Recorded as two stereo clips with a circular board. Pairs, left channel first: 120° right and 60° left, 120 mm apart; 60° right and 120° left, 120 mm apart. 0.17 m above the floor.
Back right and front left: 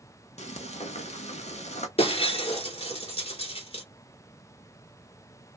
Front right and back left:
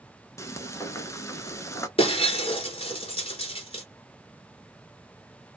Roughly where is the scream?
I don't hear a scream.